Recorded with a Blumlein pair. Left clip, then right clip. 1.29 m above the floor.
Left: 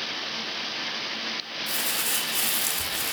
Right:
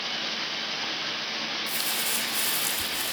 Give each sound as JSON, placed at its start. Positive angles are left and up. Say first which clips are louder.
{"t": 1.7, "sound": "crumpling", "louder": "left 1 dB", "azimuth_deg": 65, "distance_m": 3.0}